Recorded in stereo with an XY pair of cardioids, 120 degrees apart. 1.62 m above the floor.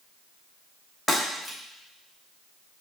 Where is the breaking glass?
Straight ahead, 3.5 m.